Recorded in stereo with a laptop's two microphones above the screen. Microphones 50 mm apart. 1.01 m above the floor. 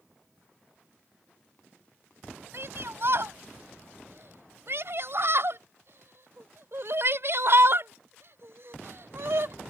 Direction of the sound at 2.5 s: 55° right (ahead or behind).